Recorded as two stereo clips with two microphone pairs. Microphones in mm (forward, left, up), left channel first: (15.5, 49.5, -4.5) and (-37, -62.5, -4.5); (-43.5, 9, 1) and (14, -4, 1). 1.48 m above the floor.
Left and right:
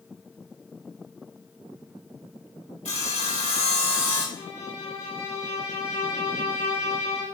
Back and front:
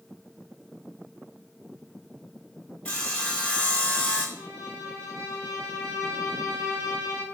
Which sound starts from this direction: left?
Sawing, at 2.9 s.